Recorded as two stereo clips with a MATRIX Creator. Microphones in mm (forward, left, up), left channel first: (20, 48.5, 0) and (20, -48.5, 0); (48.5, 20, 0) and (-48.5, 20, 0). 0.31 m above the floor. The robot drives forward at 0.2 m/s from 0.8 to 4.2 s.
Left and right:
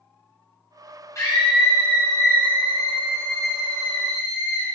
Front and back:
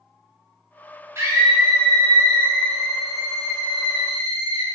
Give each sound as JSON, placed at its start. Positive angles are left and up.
{"t": 1.1, "sound": "a scream", "azimuth_deg": 130, "distance_m": 1.8}